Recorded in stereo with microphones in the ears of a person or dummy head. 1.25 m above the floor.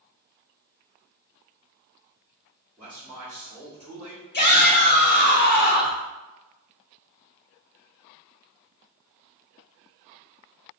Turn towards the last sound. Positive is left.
turn(degrees=40)  # may be behind; listen again after turning